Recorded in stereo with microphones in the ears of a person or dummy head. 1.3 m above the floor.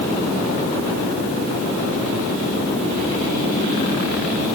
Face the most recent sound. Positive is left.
No sound to turn to.